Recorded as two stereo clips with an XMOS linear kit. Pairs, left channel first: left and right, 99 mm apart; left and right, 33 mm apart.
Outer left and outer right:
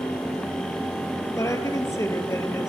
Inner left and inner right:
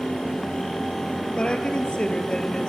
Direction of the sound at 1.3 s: 30° left (ahead or behind).